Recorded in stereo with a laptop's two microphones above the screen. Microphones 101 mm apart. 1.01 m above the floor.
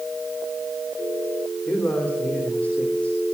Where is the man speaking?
15° left (ahead or behind), 3 m.